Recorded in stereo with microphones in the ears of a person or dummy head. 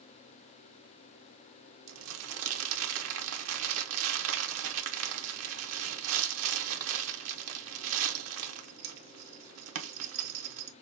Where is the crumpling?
75° right (ahead or behind), 1.1 m.